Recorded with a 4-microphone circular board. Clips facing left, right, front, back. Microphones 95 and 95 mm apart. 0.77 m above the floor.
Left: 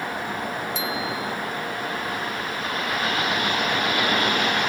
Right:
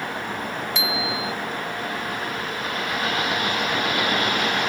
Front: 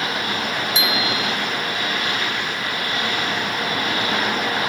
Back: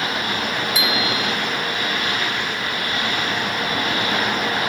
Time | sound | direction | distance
0.8 | a bicycle bell | 65° right | ?